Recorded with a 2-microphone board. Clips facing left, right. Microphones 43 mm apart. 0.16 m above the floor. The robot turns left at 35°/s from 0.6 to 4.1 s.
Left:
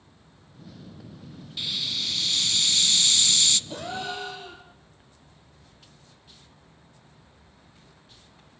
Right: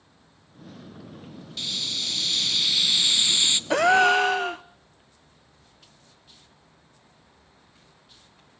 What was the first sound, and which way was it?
A hiss, 15° left (ahead or behind).